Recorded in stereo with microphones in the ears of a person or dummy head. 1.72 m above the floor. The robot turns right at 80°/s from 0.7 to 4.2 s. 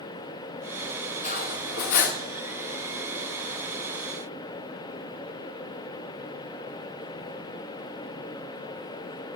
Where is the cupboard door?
I don't hear a cupboard door.